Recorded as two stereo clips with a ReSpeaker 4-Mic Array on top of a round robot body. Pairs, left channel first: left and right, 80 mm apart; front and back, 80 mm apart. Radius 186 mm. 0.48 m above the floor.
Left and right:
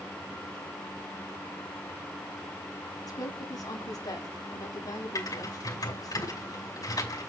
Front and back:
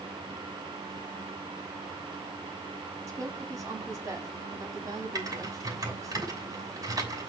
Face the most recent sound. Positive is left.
turn(degrees=135)